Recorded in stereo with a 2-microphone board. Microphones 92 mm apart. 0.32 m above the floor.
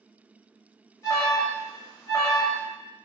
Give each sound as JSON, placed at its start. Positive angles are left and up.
{"t": 1.0, "sound": "an alarm", "side_deg": 35, "distance_m": 0.7}